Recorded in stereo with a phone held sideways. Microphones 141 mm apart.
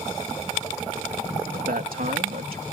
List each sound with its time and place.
1.5 s a man speaking: 85° right